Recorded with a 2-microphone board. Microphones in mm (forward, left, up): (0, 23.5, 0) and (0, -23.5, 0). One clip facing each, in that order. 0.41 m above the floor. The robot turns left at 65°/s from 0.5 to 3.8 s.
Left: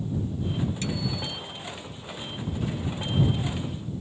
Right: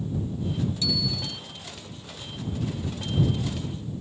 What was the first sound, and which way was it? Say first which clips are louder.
A bicycle bell: right 1 dB; 45° left.